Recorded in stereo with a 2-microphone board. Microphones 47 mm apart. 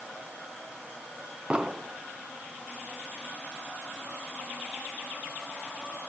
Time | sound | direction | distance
1.5 | an explosion | 20° right (ahead or behind) | 0.6 m